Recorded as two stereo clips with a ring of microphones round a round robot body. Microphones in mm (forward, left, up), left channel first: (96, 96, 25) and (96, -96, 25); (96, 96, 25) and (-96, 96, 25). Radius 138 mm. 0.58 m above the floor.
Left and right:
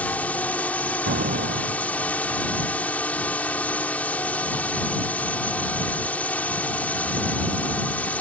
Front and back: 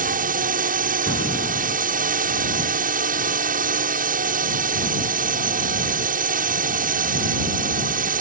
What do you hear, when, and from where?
0.0 s a drone: 170° left
1.1 s an explosion: 55° right